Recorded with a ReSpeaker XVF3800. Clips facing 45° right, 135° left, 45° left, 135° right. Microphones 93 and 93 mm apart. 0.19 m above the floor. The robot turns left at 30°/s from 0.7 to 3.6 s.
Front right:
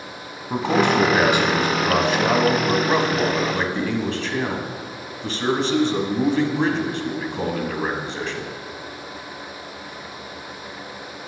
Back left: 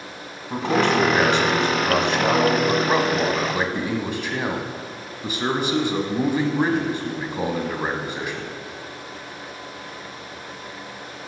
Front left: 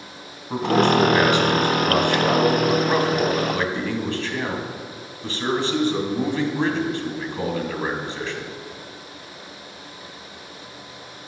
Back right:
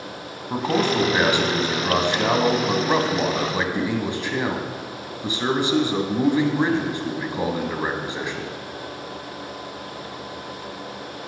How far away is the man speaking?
About 1.0 m.